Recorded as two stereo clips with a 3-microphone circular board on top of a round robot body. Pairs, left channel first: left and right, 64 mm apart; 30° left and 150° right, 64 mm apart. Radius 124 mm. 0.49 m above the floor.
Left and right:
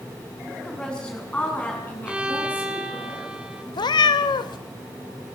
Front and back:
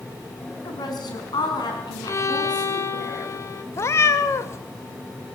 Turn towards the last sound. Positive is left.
turn(degrees=85)